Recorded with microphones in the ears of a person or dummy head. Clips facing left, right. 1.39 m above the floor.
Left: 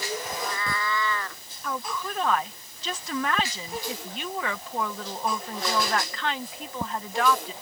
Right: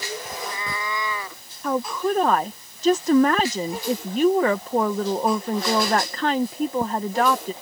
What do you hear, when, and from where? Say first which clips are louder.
0.3 s a cat meowing: even; 20° right (ahead or behind); by 1.4 s 10° right (ahead or behind)
1.6 s a woman speaking: right 10 dB; 40° right (ahead or behind)